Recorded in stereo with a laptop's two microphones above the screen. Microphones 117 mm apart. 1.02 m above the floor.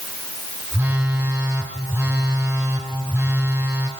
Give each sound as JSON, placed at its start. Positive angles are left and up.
{"t": 0.7, "sound": "a phone buzzing", "side_deg": -20, "distance_m": 3.0}